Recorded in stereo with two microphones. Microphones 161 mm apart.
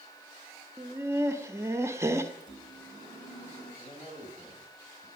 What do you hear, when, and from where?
0.8 s laughter: 15° right (ahead or behind), 0.8 m
2.4 s a microwave: 50° left (ahead or behind), 5.5 m
3.8 s a man speaking: 35° left (ahead or behind), 3.5 m